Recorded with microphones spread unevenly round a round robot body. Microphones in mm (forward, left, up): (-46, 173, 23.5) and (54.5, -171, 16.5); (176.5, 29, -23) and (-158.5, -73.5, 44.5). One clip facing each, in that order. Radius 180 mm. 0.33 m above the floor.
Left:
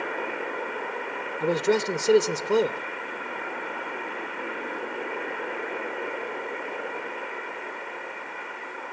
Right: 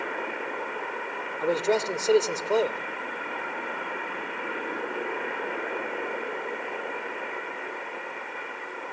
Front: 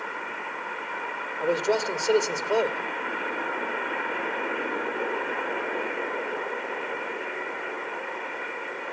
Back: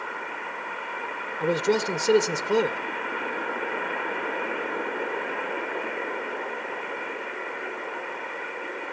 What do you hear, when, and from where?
1.4 s a man speaking: 145° left, 0.9 m